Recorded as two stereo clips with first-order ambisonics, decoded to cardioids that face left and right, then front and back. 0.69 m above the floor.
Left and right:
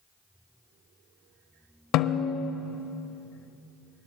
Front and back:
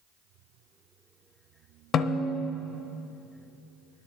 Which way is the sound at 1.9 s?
55° left.